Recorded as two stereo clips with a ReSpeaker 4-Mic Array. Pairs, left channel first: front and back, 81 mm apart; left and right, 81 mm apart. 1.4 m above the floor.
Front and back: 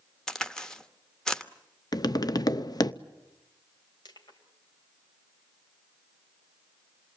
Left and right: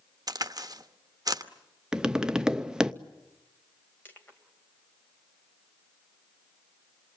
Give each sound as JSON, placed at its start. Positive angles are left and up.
{"t": 0.3, "sound": "a crack", "azimuth_deg": -80, "distance_m": 1.0}
{"t": 1.9, "sound": "tapping", "azimuth_deg": -10, "distance_m": 0.6}
{"t": 4.0, "sound": "crushing", "azimuth_deg": 25, "distance_m": 3.0}